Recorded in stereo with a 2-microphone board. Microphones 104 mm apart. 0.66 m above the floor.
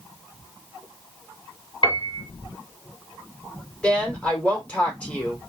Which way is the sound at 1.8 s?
60° left (ahead or behind).